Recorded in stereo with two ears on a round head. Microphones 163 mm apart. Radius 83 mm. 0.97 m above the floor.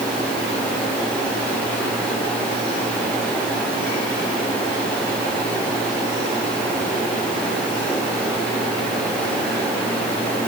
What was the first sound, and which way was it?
Only background noise.